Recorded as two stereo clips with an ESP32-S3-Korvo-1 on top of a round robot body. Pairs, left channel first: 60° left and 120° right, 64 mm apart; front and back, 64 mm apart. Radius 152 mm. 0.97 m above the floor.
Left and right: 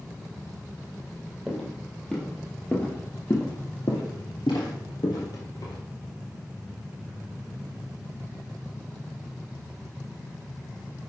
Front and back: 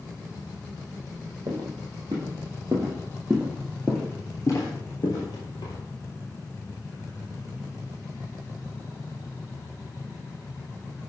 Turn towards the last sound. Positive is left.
turn(degrees=20)